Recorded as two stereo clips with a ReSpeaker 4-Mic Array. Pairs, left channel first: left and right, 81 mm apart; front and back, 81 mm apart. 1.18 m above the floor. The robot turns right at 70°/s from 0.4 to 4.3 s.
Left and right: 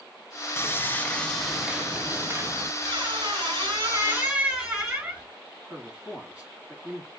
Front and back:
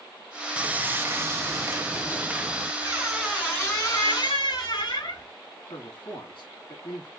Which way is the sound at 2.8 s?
120° right.